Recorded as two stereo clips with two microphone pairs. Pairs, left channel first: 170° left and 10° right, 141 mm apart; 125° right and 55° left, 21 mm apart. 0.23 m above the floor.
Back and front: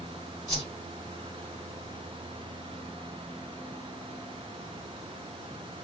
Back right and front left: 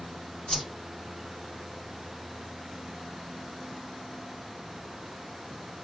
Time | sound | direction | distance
0.5 | a whoosh | 135° right | 1.9 m